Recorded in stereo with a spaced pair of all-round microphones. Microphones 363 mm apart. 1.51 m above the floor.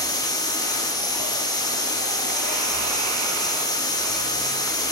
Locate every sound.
0.0 s a machine running: 10° left (ahead or behind), 1.3 m